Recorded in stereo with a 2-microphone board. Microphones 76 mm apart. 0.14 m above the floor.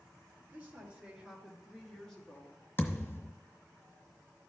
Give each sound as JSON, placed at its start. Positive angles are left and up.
{"t": 0.5, "sound": "a woman speaking", "side_deg": -20, "distance_m": 3.0}
{"t": 2.8, "sound": "a thud", "side_deg": 30, "distance_m": 1.3}